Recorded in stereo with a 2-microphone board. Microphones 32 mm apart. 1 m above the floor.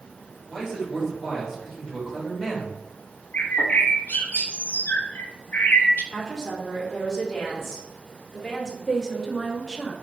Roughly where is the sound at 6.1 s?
Centre.